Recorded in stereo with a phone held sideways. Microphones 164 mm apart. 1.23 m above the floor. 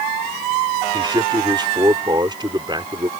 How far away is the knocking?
No knocking in this recording.